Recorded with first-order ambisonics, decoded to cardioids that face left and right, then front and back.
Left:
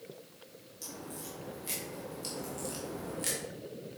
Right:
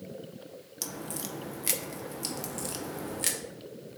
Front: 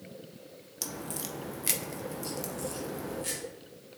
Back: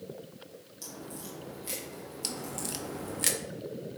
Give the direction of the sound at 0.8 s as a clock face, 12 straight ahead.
2 o'clock.